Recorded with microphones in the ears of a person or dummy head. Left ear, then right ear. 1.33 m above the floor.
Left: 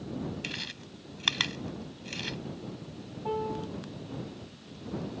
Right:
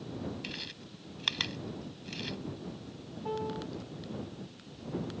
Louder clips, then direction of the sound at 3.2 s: Left 3 dB; 5° left (ahead or behind).